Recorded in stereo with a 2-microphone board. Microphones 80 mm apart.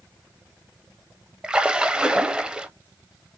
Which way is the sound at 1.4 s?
15° right (ahead or behind).